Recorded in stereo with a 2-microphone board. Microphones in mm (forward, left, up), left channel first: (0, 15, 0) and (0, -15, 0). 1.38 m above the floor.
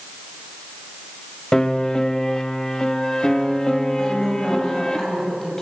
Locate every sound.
1.5 s a piano: 20° left (ahead or behind), 1.7 m
4.0 s a woman speaking: 15° left (ahead or behind), 7 m